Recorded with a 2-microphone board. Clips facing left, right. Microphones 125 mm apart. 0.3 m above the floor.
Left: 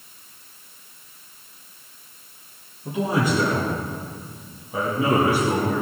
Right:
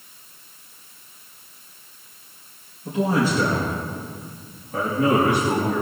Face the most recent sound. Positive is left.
turn(degrees=0)  # may be behind; listen again after turning